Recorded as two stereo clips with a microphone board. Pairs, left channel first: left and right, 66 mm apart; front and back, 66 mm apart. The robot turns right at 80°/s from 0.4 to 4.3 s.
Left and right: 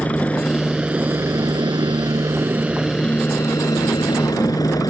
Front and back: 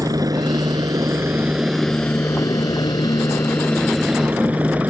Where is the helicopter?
160° left; by 4.9 s 110° left.